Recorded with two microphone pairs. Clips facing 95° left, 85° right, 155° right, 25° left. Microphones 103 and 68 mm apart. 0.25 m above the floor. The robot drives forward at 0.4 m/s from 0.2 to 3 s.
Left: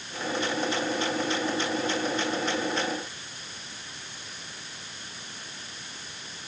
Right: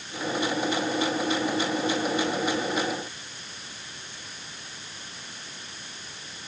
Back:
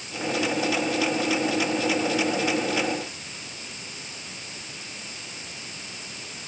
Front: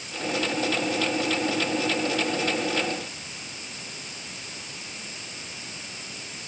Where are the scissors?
No scissors in this recording.